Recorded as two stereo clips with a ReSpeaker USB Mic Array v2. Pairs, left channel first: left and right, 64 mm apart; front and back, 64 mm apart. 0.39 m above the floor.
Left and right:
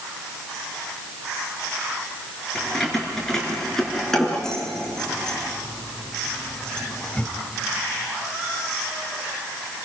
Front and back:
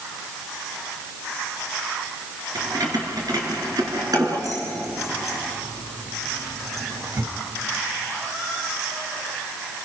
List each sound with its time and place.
2.5 s keys jangling: 175° left, 4.5 m; by 7.3 s 160° left, 1.3 m